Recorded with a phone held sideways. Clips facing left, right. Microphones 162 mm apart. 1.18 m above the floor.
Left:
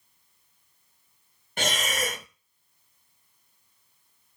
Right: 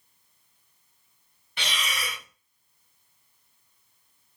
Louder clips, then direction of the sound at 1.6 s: Left 6 dB; 45° left (ahead or behind).